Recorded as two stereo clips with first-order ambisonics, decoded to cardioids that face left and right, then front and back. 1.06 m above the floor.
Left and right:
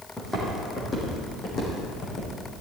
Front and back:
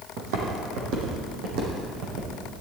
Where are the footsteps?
175° left, 3 m; by 2.3 s 150° left, 4 m.